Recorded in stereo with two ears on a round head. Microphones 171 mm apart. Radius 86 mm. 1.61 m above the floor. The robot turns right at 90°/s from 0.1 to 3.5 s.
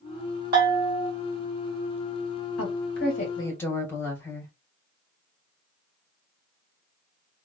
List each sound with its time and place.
0.5 s a bell: 100° right, 2 m; by 1.1 s 50° right, 2 m
2.6 s a woman speaking: 85° left, 2.0 m; by 4.5 s 165° left, 2.0 m